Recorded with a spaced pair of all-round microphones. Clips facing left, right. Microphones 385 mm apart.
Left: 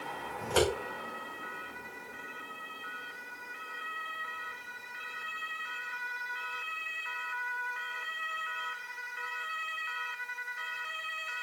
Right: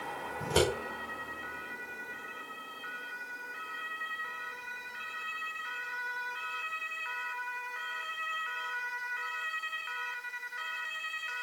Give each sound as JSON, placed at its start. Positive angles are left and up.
{"t": 0.4, "sound": "scissors", "side_deg": -50, "distance_m": 5.0}